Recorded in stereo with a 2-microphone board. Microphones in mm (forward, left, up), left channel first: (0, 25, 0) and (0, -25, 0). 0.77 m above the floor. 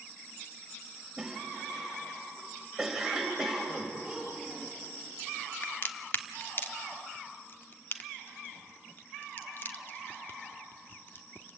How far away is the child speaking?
About 8 m.